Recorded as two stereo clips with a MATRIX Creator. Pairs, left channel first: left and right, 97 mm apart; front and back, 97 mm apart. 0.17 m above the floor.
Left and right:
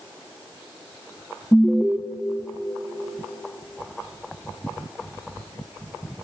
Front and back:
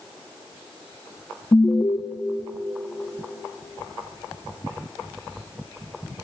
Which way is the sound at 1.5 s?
25° right.